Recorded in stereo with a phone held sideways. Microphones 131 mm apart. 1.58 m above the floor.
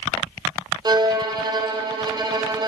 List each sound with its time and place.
0.8 s a violin: 30° right (ahead or behind), 0.7 m